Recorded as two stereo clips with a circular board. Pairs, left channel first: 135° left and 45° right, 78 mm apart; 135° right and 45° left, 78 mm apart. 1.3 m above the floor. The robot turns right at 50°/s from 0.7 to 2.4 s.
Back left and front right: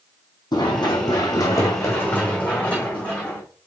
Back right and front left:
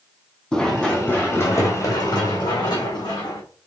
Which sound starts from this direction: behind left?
Running footsteps, at 0.5 s.